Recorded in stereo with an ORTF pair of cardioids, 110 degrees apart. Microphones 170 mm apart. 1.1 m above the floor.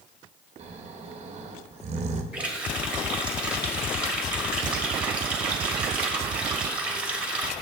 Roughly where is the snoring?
Ahead right.